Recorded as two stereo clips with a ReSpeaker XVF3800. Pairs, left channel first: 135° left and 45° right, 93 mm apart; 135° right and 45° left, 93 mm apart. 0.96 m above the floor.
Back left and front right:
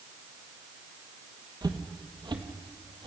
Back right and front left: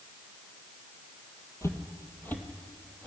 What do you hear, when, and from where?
1.6 s footsteps: 80° right, 1.9 m; by 3.1 s 55° right, 2 m